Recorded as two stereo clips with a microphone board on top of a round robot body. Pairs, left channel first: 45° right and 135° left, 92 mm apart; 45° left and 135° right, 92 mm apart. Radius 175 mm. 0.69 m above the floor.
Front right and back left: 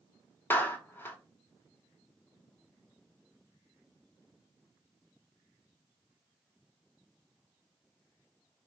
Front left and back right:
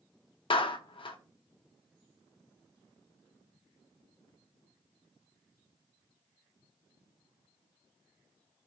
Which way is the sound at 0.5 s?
25° left.